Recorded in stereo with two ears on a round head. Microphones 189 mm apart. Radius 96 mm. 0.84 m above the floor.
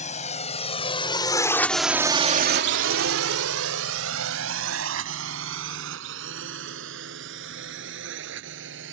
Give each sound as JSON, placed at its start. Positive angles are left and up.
{"t": 0.0, "sound": "a drone", "side_deg": 35}